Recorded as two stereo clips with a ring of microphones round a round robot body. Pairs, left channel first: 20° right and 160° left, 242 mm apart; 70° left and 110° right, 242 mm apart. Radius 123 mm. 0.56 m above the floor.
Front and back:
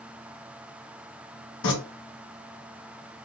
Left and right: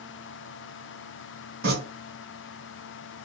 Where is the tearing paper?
65° right, 2.5 m.